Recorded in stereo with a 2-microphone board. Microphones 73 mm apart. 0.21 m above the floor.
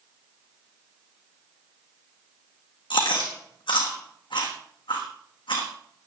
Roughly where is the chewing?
Left.